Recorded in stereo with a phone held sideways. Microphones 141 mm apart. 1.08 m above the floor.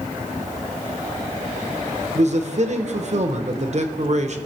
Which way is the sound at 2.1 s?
55° right (ahead or behind).